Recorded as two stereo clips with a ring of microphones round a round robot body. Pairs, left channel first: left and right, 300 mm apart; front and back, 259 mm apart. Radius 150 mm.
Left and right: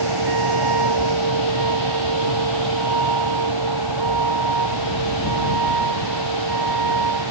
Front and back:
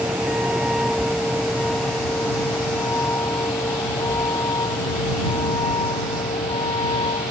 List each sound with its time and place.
0.0 s a vehicle: 95° right; by 7.3 s 75° right